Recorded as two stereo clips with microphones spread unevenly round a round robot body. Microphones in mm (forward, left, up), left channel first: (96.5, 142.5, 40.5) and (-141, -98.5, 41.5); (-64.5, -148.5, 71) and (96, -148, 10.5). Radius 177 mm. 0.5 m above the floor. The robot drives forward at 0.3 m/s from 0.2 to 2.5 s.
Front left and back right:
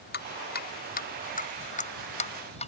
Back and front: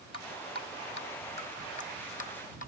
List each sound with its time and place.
0.1 s dripping: 105° left; by 2.7 s 115° left